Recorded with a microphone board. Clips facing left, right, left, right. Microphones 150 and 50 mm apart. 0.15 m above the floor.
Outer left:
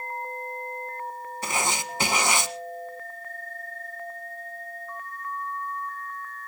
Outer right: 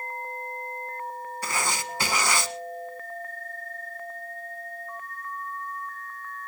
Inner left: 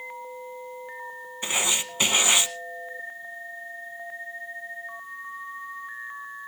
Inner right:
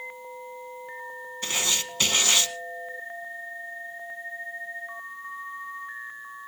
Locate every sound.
1.4 s writing: 20° left (ahead or behind), 1.0 m